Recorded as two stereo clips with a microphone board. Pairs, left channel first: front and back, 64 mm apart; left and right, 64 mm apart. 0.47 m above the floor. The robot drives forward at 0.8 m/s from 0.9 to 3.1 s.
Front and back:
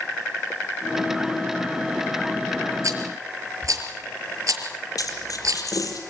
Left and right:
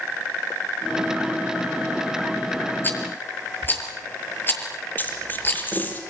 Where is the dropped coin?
25° left, 6 m.